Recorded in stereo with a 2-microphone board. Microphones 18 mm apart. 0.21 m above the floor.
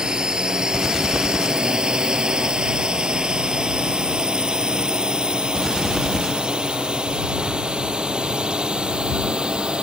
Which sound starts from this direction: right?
A drone, at 0.0 s.